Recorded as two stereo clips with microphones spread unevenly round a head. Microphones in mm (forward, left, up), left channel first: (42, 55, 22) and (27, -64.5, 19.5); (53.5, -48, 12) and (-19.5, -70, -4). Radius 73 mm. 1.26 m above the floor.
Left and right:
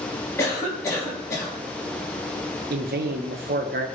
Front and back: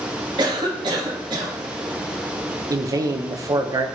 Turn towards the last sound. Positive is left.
turn(degrees=-120)